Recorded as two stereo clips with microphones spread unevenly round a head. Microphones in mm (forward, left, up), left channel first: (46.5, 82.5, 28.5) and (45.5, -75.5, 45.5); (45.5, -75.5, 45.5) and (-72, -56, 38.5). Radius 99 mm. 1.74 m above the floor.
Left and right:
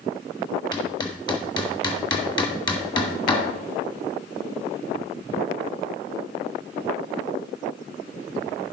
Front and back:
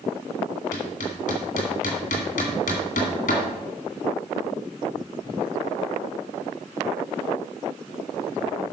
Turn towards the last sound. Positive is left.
turn(degrees=25)